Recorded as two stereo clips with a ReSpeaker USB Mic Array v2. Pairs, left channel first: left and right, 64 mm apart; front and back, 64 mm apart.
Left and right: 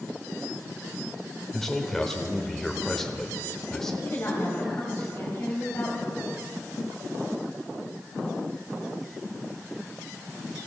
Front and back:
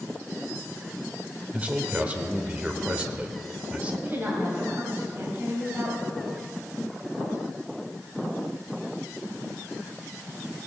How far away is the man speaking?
About 0.8 m.